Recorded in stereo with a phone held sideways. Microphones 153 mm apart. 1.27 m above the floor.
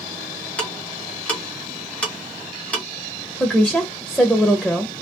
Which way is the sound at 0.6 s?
10° left (ahead or behind).